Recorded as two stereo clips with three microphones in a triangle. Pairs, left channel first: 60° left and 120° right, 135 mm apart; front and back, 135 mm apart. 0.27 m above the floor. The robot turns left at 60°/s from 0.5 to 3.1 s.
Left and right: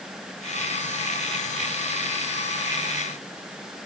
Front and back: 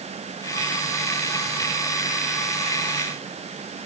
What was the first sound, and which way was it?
Only background noise.